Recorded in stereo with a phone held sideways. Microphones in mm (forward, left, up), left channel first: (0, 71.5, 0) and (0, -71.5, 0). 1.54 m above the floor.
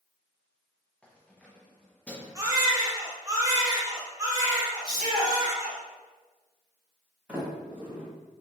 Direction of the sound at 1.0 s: 10° left (ahead or behind).